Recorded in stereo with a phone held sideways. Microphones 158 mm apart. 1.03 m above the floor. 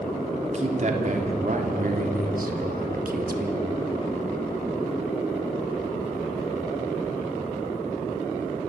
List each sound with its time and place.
0.4 s a man speaking: 50° right (ahead or behind), 3.5 m; by 3.6 s 70° right (ahead or behind), 2 m